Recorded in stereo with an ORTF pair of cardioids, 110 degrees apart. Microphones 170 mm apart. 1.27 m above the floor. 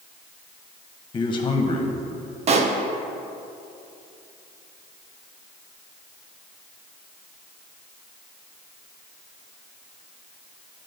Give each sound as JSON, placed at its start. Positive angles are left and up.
{"t": 1.1, "sound": "a man speaking", "azimuth_deg": 30, "distance_m": 0.9}
{"t": 2.5, "sound": "a pop", "azimuth_deg": -40, "distance_m": 0.6}